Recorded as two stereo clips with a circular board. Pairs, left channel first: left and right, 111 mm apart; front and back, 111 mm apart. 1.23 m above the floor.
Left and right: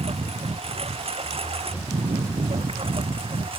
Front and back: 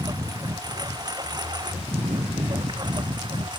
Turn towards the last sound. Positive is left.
turn(degrees=-130)